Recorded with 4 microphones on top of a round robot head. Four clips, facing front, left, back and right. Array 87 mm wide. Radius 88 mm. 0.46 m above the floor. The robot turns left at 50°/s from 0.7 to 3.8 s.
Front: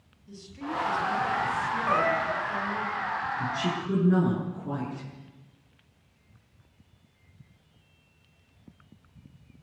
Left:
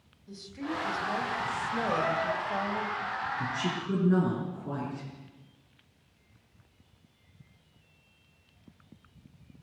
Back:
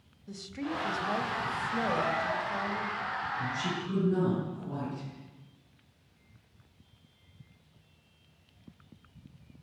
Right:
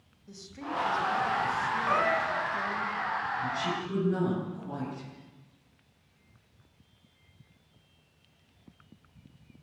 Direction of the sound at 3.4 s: 55° left.